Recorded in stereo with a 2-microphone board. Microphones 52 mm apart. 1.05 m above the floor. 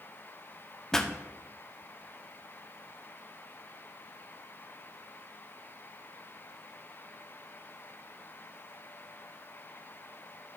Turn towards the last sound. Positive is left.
turn(degrees=10)  # may be behind; listen again after turning